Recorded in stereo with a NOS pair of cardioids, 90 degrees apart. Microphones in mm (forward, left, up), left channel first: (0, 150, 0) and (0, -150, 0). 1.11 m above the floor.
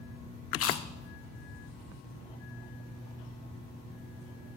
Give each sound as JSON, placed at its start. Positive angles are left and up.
{"t": 0.5, "sound": "chewing", "azimuth_deg": 50, "distance_m": 0.7}